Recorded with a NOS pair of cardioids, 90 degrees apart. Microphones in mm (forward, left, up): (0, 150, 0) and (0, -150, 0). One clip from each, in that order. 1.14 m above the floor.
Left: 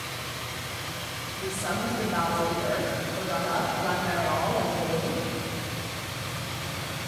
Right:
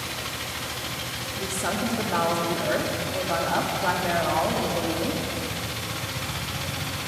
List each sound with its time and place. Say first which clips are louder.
0.0 s a machine running: right 3 dB; 65° right, 1.5 m
1.4 s a woman speaking: right 2 dB; 65° right, 2 m